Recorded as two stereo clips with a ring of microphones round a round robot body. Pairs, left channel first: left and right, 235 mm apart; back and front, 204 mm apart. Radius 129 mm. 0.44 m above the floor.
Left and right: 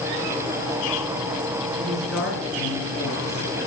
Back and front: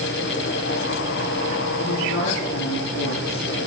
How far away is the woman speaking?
About 7.5 m.